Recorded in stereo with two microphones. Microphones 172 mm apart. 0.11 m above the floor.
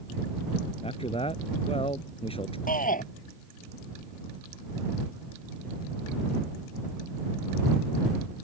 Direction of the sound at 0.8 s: 35° left (ahead or behind).